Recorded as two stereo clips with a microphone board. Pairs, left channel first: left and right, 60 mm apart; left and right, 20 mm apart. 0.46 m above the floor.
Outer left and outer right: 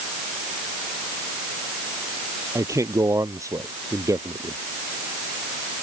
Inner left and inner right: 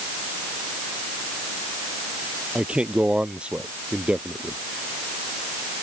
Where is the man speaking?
60° right (ahead or behind).